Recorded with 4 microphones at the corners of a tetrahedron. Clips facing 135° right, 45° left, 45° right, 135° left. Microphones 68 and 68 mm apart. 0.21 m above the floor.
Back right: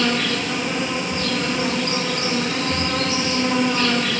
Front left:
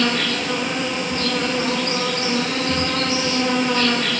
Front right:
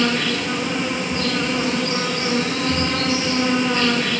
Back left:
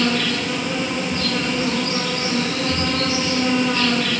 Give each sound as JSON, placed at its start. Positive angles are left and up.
{"t": 0.0, "sound": "an insect", "azimuth_deg": 15, "distance_m": 8.5}